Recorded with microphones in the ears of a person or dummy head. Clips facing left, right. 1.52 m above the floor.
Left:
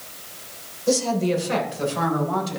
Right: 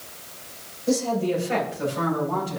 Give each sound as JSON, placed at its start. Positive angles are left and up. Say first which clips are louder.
{"t": 0.9, "sound": "a woman speaking", "louder": "left 2 dB", "side_deg": 75, "distance_m": 6.5}